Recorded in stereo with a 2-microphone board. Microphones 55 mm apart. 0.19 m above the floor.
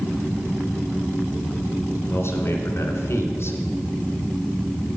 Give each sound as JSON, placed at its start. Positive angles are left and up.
{"t": 2.0, "sound": "a man speaking", "side_deg": 50, "distance_m": 2.0}